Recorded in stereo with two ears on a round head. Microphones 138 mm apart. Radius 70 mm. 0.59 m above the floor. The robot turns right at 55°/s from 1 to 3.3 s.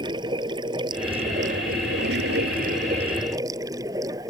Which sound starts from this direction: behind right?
Running water, at 0.0 s.